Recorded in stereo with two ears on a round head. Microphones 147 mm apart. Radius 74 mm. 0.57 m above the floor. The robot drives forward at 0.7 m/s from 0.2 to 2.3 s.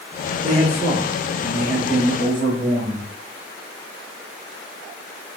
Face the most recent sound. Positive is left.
turn(degrees=-25)  # may be behind; listen again after turning